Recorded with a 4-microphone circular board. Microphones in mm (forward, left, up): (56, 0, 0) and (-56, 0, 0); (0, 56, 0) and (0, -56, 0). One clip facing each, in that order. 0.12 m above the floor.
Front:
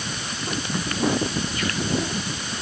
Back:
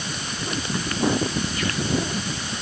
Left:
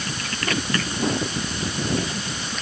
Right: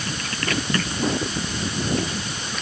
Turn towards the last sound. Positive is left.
No sound to turn to.